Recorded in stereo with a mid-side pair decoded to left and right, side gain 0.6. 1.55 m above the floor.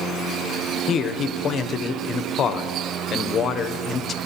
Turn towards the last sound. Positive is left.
turn(degrees=40)